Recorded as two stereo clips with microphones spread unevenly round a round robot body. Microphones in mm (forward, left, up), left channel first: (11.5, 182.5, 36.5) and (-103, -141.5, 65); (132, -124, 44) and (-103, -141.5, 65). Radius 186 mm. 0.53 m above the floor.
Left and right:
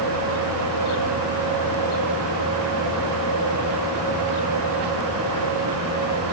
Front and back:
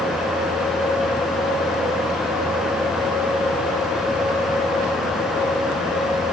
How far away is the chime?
No chime in this recording.